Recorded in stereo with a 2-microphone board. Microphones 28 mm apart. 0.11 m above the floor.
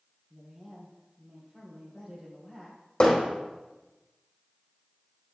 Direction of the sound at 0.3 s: 20° right (ahead or behind).